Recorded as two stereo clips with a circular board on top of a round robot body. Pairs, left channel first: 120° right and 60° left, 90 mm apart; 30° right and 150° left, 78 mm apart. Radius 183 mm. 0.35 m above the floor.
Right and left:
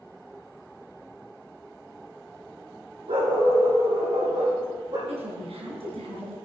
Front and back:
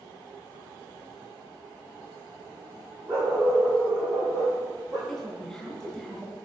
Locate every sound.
3.1 s a dog barking: 85° left, 5.5 m; by 5.0 s 95° left, 5.5 m
5.1 s a woman speaking: 55° left, 4.5 m